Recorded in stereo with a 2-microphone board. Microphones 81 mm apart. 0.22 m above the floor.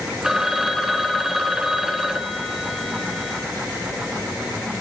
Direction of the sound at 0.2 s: 10° right (ahead or behind).